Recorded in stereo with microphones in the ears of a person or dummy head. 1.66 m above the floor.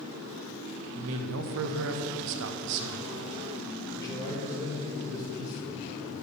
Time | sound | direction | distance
0.9 | a man speaking | 70° right (ahead or behind) | 0.5 m
3.9 | a man speaking | 20° left (ahead or behind) | 2.5 m